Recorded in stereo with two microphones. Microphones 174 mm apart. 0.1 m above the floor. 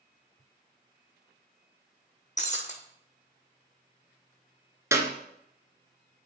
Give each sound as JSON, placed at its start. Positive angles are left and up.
{"t": 2.4, "sound": "breaking glass", "side_deg": 45, "distance_m": 1.3}
{"t": 4.9, "sound": "a clap", "side_deg": -15, "distance_m": 0.9}